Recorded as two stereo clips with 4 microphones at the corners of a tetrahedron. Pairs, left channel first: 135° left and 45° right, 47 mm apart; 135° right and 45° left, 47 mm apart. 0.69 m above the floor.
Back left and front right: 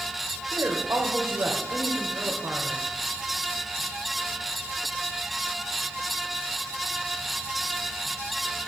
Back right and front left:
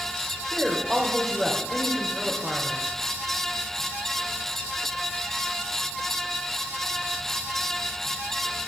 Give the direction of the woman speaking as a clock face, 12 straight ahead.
2 o'clock.